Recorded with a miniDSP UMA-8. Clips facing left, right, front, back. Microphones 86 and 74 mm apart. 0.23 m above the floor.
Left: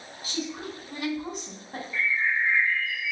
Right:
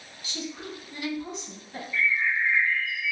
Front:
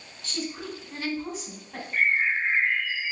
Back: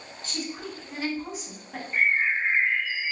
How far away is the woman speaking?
About 1.4 m.